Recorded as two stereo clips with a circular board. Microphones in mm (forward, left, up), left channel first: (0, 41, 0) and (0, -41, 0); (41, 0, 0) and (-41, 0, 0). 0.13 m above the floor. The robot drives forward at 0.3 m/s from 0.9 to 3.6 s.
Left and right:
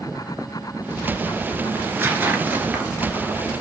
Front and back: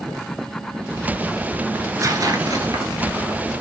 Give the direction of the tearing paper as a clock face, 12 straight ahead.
5 o'clock.